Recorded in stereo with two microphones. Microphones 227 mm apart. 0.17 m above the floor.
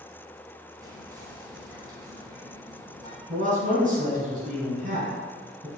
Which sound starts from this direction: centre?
Whispering, at 0.8 s.